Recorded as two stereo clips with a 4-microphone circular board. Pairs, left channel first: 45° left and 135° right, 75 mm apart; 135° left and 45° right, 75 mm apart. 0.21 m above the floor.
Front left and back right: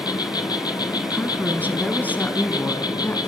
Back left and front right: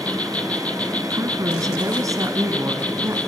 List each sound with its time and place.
0.0 s an insect: 65° left, 1.2 m
1.1 s a woman speaking: 15° right, 1.8 m